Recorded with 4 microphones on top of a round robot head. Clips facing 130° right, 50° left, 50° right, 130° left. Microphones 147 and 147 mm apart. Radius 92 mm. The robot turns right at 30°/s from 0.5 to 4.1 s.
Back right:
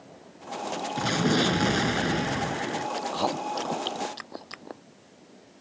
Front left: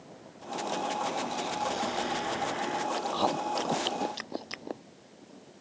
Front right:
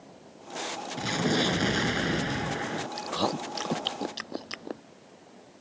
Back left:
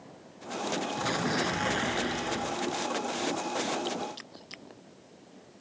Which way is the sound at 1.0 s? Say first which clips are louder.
Back right 8 dB, front right 7 dB; 125° right.